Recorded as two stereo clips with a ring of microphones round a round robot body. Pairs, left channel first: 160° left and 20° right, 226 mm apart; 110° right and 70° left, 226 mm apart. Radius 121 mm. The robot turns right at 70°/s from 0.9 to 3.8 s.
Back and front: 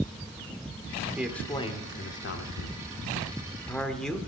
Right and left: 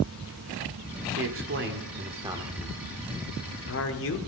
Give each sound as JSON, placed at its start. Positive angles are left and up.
{"t": 1.2, "sound": "a man speaking", "azimuth_deg": 60, "distance_m": 1.7}